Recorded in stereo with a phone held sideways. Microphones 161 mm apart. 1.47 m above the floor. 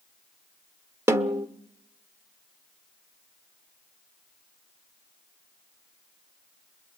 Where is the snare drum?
15° right (ahead or behind), 1.1 m.